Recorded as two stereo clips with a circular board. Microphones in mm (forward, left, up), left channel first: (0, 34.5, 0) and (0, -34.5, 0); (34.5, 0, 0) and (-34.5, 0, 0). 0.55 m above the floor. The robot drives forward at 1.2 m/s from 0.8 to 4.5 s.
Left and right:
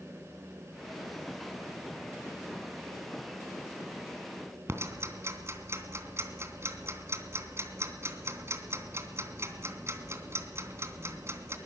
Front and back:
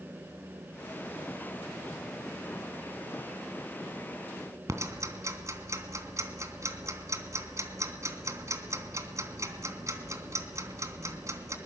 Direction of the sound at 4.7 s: 140° right.